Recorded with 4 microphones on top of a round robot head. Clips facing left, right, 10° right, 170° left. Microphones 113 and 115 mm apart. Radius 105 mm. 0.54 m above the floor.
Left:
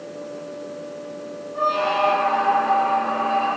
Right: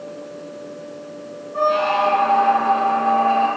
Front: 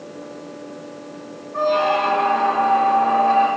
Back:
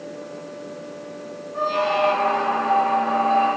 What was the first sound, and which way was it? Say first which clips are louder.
A squeak: right 3 dB, front 3 dB; 55° right.